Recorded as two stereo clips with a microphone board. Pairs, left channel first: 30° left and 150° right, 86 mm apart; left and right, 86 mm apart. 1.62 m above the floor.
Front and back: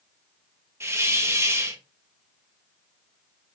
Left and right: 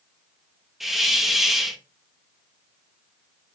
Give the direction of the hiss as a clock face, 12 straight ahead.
6 o'clock.